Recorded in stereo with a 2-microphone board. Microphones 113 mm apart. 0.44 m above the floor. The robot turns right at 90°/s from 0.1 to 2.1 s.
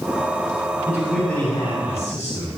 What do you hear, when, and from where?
0.9 s a man speaking: 20° right, 3.5 m; by 2.5 s 90° left, 3.5 m